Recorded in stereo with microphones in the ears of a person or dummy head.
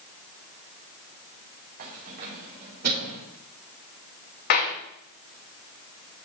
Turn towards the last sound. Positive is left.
turn(degrees=55)  # may be behind; listen again after turning